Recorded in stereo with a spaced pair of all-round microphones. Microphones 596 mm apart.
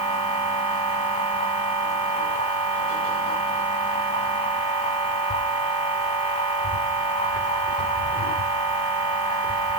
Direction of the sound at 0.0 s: 10° left (ahead or behind).